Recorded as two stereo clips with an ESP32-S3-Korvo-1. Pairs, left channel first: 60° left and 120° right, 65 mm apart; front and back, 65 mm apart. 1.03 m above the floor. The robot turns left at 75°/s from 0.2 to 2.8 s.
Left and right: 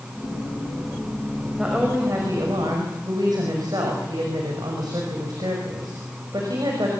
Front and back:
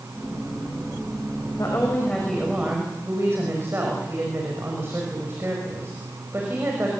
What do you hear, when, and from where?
1.6 s a woman speaking: 35° right, 6 m; by 6.9 s 125° right, 6 m